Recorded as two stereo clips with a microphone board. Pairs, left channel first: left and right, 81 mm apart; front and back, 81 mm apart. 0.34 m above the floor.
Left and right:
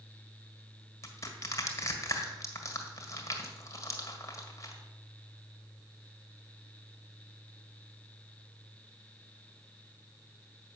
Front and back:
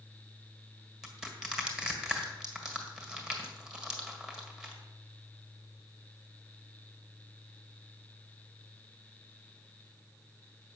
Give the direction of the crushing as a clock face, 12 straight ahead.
9 o'clock.